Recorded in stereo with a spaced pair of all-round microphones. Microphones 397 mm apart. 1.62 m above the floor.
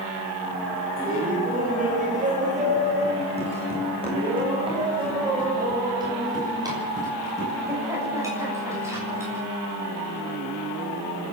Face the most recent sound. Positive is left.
turn(degrees=-5)  # may be behind; listen again after turning